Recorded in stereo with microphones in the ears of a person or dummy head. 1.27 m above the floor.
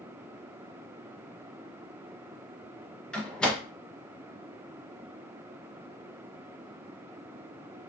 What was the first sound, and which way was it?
A door slam, 5° left (ahead or behind).